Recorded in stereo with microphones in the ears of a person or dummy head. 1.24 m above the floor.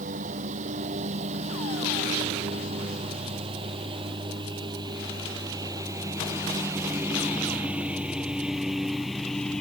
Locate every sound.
0.0 s a lawn mower: 40° right (ahead or behind); by 9.6 s 5° left (ahead or behind)